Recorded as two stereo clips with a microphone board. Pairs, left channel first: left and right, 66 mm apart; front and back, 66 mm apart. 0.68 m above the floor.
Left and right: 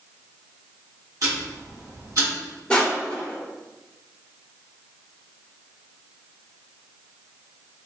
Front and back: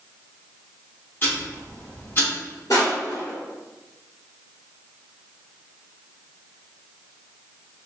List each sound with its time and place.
1.2 s ticking: 55° right, 1.3 m
2.7 s crushing: 15° left, 1.8 m